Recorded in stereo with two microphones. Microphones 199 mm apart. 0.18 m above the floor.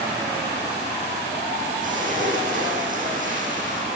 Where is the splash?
45° right (ahead or behind), 10 m.